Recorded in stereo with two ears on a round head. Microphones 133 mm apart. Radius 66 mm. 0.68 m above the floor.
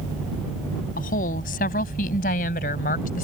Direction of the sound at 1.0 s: 65° left (ahead or behind).